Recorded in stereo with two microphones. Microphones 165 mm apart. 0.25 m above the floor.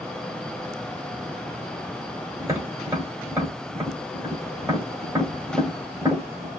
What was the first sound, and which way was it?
Tapping, 20° right (ahead or behind).